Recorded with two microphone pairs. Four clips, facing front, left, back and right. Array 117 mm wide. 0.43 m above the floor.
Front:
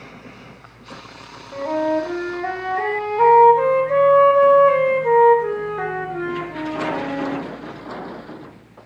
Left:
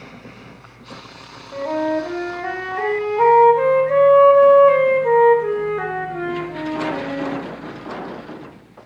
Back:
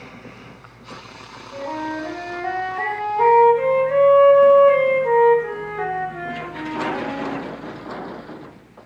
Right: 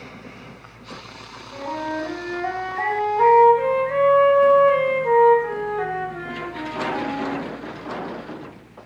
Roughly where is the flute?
Ahead left.